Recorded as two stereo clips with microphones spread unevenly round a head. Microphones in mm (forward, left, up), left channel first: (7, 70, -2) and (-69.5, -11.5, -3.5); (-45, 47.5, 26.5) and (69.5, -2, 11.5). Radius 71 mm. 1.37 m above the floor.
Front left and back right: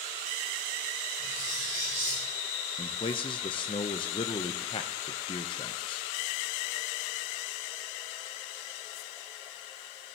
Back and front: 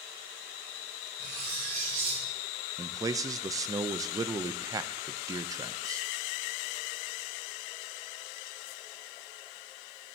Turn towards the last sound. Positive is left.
turn(degrees=20)